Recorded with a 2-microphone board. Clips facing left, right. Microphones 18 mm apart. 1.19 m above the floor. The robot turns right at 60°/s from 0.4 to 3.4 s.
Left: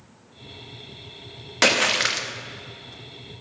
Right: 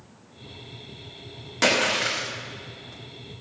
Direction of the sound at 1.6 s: 30° left.